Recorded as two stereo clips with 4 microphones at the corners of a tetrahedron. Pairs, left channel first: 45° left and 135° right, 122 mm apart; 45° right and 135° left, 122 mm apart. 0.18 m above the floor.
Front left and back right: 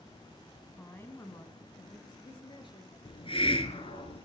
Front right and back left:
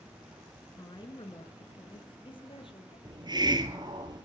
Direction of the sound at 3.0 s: 85° left.